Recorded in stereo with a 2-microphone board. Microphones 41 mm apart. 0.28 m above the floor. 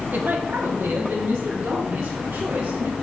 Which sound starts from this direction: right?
A woman speaking, at 0.1 s.